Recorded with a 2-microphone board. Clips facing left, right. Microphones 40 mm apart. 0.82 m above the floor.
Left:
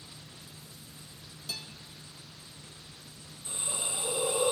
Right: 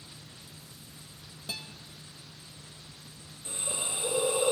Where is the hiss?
40° right (ahead or behind), 4 m.